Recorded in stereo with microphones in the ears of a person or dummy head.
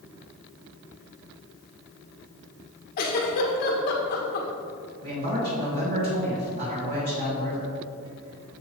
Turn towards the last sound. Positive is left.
turn(degrees=-45)  # may be behind; listen again after turning